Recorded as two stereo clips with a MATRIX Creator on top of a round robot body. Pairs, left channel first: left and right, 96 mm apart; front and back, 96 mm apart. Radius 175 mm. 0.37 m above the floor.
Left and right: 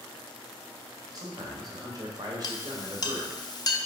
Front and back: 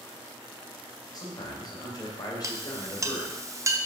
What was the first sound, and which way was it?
A man speaking, 45° right.